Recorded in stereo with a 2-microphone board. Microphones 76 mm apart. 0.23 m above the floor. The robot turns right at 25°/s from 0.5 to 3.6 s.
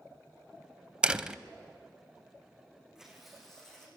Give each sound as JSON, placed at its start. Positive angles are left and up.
{"t": 1.0, "sound": "a door slam", "side_deg": -10, "distance_m": 0.6}
{"t": 3.0, "sound": "tearing paper", "side_deg": -10, "distance_m": 5.0}